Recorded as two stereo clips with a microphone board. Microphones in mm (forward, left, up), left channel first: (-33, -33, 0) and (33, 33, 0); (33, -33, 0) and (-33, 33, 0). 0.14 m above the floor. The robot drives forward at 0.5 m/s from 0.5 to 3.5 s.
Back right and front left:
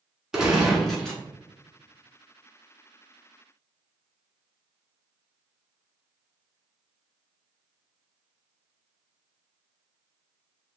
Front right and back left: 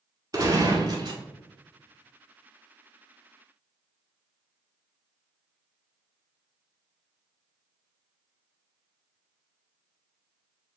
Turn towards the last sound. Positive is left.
turn(degrees=165)